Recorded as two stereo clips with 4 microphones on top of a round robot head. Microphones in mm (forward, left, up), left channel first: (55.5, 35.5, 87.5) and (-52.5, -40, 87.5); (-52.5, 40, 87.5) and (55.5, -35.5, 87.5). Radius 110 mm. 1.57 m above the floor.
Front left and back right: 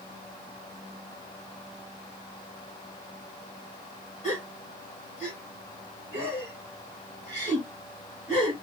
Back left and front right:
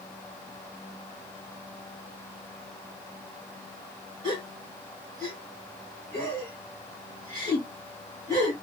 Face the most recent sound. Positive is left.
turn(degrees=15)